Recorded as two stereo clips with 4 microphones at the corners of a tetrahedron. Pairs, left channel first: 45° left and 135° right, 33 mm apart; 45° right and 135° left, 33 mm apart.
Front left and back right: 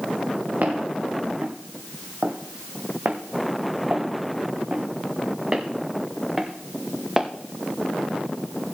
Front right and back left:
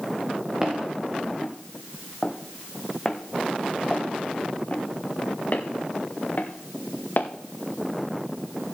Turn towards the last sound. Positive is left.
turn(degrees=-55)